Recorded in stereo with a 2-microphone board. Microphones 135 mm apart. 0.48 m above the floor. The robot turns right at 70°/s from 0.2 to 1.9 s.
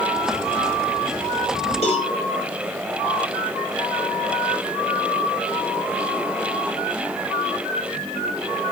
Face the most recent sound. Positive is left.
turn(degrees=50)  # may be behind; listen again after turning